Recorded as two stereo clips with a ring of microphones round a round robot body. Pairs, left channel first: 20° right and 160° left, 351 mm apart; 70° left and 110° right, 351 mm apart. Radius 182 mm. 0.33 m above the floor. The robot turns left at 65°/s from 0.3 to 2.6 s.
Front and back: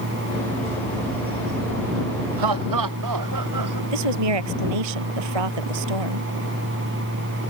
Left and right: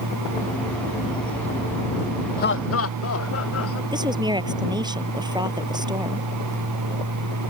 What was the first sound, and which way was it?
Laughter, 135° left.